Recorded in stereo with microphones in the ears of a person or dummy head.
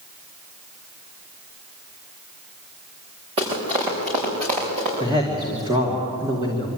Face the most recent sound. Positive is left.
turn(degrees=-30)  # may be behind; listen again after turning